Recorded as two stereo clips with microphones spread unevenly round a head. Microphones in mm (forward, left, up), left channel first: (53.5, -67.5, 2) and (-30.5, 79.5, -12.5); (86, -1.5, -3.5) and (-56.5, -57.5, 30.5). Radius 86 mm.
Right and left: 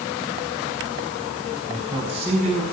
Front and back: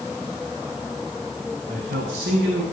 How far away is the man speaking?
About 6.5 m.